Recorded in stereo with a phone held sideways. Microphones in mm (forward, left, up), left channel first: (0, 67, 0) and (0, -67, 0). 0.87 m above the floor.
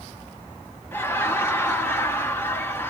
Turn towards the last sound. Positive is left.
turn(degrees=15)  # may be behind; listen again after turning